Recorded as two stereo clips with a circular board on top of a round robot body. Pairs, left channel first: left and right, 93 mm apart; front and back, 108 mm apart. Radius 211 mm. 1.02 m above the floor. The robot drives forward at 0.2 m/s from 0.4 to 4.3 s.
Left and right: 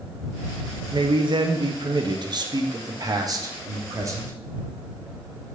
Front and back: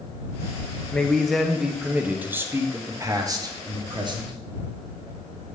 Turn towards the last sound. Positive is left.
turn(degrees=-140)